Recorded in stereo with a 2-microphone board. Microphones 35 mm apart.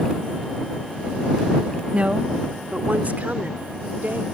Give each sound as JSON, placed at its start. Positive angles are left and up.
{"t": 1.9, "sound": "a woman speaking", "side_deg": -40}